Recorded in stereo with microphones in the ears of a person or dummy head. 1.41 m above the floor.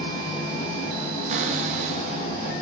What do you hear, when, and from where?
0.0 s an engine running: 25° left (ahead or behind), 5 m
1.3 s a cupboard door: 45° right (ahead or behind), 1.1 m